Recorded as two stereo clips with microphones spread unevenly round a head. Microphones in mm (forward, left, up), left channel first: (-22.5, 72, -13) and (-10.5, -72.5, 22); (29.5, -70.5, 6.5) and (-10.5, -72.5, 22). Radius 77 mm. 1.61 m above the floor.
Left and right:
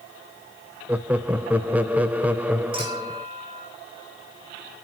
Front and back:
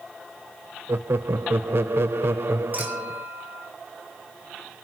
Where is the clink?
140° right, 6.5 m.